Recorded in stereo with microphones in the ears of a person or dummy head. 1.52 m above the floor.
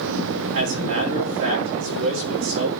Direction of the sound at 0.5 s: 65° right (ahead or behind).